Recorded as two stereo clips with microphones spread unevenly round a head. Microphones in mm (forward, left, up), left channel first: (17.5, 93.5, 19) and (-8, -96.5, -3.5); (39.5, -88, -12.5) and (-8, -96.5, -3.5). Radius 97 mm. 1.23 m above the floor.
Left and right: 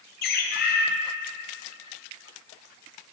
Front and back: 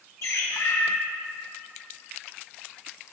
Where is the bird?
40° left, 0.9 m.